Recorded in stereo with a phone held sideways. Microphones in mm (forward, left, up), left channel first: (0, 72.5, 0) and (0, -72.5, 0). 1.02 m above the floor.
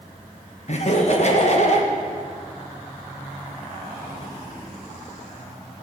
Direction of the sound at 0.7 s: 50° left (ahead or behind).